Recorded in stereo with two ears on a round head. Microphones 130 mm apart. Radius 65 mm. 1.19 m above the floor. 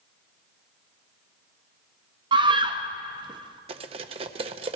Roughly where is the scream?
Right.